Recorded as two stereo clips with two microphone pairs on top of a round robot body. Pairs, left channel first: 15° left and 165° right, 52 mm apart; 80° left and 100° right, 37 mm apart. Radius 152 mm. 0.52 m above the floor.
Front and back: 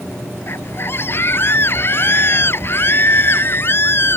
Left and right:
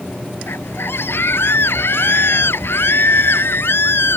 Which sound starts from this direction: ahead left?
A scream, at 0.5 s.